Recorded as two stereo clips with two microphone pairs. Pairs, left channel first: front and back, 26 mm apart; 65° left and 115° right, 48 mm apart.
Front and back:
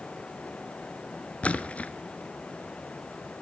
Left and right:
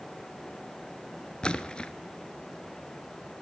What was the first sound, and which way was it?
A splash, straight ahead.